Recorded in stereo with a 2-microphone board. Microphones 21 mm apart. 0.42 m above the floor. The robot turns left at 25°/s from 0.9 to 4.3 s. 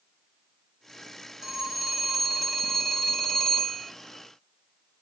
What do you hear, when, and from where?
1.4 s a phone ringing: 155° right, 1.7 m; by 3.9 s 145° left, 1.7 m